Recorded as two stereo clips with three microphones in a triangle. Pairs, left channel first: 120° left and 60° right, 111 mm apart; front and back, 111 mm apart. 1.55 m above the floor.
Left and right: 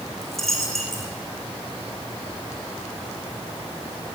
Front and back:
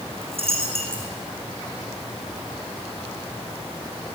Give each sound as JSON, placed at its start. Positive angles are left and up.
{"t": 0.2, "sound": "a dropped coin", "azimuth_deg": -150, "distance_m": 5.0}